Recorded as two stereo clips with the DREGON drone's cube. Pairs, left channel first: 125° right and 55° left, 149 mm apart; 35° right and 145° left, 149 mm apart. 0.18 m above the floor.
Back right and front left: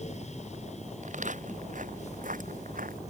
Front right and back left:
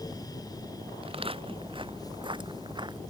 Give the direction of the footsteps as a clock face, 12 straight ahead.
9 o'clock.